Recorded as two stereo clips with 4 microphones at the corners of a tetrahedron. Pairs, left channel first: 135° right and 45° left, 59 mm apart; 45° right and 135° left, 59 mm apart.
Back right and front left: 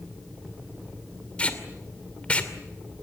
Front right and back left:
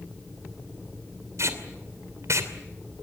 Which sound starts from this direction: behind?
Tape being pulled, at 1.4 s.